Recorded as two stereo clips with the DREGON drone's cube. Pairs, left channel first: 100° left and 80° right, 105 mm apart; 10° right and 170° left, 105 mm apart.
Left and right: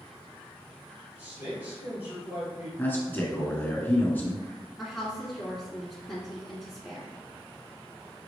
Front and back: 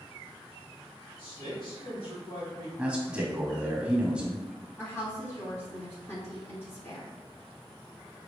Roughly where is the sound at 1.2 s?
Ahead right.